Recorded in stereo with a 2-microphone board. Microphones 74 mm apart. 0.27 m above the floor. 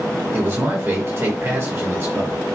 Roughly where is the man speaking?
Right.